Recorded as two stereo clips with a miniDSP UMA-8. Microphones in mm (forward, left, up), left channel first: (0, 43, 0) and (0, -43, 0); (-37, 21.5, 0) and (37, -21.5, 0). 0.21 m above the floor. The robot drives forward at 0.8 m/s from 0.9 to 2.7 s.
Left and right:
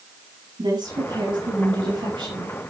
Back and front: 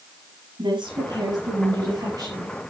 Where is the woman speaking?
60° right, 5.5 m; by 2.6 s 75° right, 5 m.